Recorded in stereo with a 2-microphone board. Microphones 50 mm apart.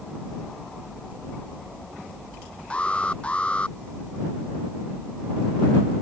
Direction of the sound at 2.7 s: 20° left (ahead or behind).